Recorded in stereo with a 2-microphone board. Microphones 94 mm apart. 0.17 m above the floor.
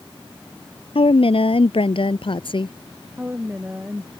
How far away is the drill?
No drill in this recording.